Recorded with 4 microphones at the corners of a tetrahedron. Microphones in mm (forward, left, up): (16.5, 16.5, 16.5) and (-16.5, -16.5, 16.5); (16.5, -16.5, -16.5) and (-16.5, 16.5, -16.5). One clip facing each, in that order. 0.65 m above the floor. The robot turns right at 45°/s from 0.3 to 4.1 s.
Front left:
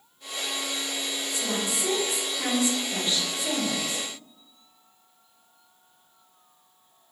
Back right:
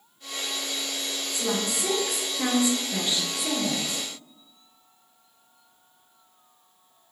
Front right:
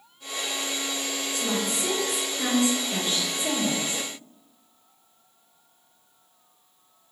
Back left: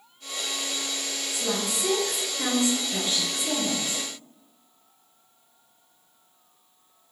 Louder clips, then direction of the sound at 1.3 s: Back right 3 dB, even; 160° right.